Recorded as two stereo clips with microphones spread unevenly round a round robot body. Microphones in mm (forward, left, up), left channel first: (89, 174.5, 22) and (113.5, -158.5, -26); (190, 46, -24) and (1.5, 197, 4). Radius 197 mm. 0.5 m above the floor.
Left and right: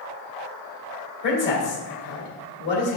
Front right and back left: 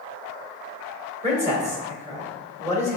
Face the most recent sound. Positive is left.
turn(degrees=80)